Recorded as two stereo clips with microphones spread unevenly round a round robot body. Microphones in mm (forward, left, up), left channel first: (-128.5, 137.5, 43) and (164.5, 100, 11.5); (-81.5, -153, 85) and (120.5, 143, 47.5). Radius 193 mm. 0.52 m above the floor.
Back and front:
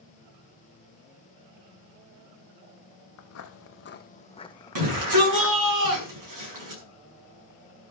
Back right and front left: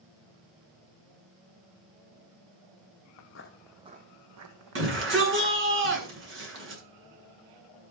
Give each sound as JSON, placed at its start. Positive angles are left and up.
{"t": 3.2, "sound": "footsteps", "azimuth_deg": -150, "distance_m": 0.8}
{"t": 4.8, "sound": "a shout", "azimuth_deg": 0, "distance_m": 7.5}